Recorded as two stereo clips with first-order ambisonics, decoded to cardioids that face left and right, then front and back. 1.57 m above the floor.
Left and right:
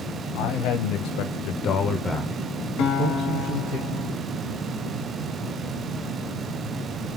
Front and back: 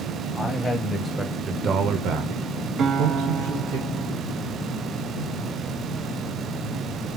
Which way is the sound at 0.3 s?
70° left.